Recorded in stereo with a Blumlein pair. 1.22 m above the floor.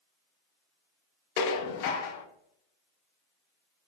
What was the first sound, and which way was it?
Dishes clattering, 50° left.